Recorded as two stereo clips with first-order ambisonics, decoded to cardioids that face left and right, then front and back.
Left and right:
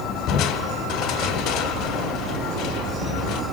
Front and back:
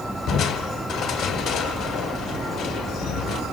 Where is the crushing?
50° left, 1.4 m.